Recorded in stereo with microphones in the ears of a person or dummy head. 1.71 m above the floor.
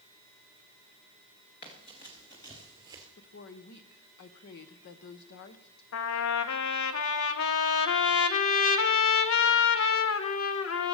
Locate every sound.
1.6 s running footsteps: 25° left (ahead or behind), 2 m; by 3.1 s 5° left (ahead or behind), 1.6 m
3.2 s a woman speaking: 60° left (ahead or behind), 1.1 m
5.9 s a trumpet: 70° left (ahead or behind), 0.9 m